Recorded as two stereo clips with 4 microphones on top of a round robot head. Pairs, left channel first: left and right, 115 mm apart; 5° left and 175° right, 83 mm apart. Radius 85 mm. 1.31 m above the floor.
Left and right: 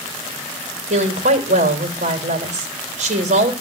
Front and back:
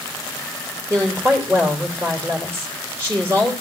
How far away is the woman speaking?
About 3.5 m.